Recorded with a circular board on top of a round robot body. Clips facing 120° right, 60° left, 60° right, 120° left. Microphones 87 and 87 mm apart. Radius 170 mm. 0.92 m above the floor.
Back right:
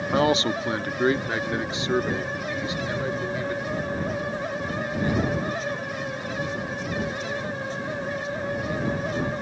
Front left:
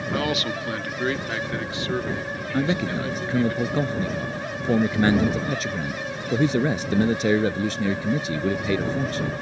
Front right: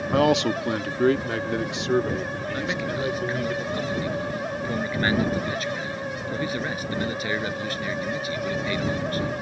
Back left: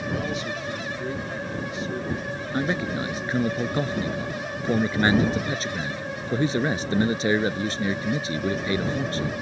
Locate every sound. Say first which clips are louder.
0.1 s a man speaking: back right 5 dB, front right 14 dB; 60° right; by 3.5 s 50° right
2.5 s a man speaking: front left 8 dB, back left 3 dB; 55° left